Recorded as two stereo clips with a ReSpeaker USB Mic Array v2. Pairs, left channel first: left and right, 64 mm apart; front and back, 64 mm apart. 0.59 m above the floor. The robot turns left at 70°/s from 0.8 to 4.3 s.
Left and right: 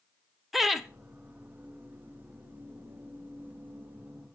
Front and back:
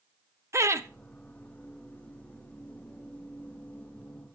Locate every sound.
0.5 s laughter: 175° right, 0.7 m; by 0.9 s straight behind, 0.7 m